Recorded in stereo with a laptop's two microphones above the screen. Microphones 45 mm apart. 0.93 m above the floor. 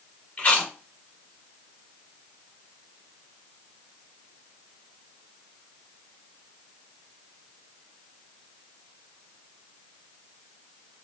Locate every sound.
0.4 s chewing: 35° left (ahead or behind), 2.0 m